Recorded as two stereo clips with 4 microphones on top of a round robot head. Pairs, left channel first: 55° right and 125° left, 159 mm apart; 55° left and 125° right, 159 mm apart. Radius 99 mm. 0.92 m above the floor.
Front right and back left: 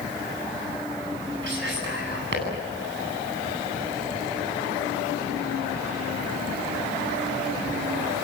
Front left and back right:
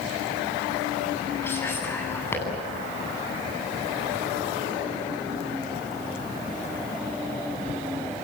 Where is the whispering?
130° left, 10 m.